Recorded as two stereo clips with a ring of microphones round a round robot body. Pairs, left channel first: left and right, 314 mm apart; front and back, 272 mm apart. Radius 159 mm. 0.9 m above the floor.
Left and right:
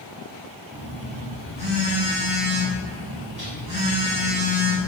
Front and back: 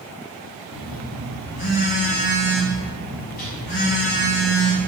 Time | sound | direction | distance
0.7 | a phone buzzing | 20° right | 3 m